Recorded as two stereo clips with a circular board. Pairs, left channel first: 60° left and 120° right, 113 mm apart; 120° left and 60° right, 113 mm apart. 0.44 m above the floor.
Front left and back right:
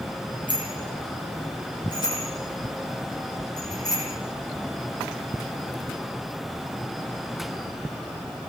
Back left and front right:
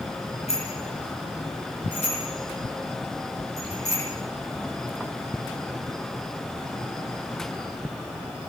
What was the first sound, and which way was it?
A bicycle bell, 100° left.